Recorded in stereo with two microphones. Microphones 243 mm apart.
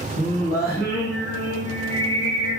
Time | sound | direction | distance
0.2 | singing | 40° left (ahead or behind) | 3 m